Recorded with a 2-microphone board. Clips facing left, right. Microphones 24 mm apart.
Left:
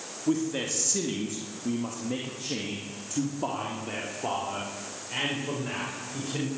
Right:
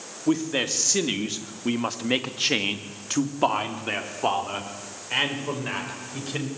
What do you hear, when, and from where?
0.3 s a man speaking: 35° right (ahead or behind), 3.5 m; by 6.5 s 25° right (ahead or behind), 7 m